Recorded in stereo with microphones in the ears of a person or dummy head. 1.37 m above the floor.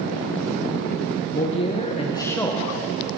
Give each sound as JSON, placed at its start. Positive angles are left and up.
{"t": 1.3, "sound": "a man speaking", "side_deg": 35, "distance_m": 1.6}